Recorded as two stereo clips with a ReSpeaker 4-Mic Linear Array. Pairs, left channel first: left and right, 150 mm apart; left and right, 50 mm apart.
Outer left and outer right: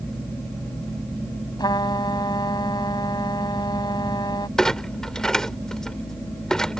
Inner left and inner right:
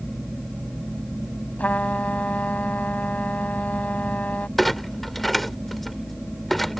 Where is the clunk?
5° left (ahead or behind).